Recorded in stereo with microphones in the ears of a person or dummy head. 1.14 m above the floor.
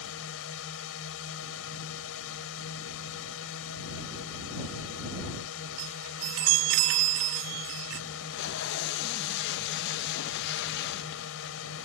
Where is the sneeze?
No sneeze in this recording.